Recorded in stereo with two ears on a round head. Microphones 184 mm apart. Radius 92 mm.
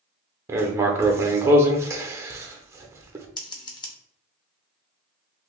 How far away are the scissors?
About 0.7 m.